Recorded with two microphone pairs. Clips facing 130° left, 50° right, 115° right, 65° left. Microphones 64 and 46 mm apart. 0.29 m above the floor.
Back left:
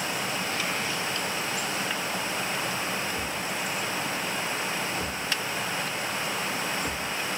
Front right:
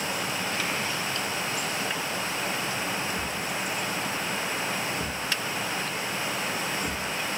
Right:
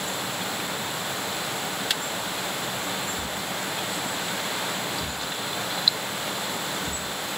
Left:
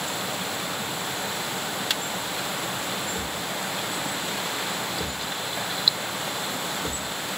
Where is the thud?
15° left, 3.5 m.